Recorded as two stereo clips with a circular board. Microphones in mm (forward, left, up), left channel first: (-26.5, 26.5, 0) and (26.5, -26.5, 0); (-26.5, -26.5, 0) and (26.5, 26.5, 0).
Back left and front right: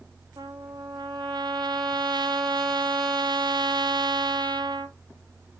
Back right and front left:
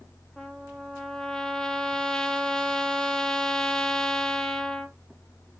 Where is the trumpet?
55° right, 0.6 m.